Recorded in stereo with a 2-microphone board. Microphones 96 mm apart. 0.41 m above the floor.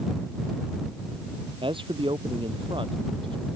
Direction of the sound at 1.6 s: 60° right (ahead or behind).